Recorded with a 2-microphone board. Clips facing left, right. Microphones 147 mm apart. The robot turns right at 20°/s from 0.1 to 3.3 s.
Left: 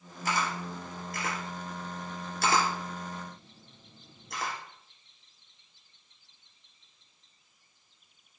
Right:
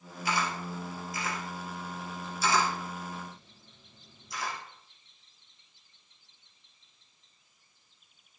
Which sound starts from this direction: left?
A camera shutter, at 0.2 s.